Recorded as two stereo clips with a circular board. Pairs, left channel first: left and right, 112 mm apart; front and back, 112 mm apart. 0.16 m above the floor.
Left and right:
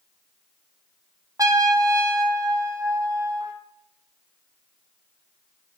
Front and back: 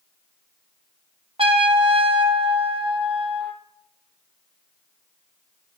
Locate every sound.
1.4 s a trumpet: 150° right, 1.4 m